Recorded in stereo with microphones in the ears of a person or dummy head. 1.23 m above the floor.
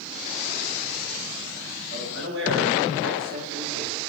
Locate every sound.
1.9 s a man speaking: 75° right (ahead or behind), 2 m